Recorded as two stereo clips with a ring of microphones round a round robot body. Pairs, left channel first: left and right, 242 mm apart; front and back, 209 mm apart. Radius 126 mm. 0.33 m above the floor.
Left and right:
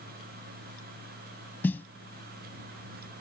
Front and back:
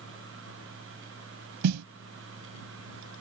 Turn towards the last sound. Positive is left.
turn(degrees=175)